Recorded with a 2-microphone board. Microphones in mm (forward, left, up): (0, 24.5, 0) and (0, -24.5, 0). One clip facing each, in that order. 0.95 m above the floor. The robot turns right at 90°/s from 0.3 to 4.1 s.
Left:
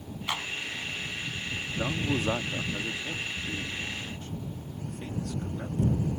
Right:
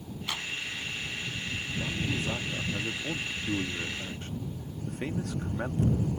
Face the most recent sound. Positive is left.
turn(degrees=-60)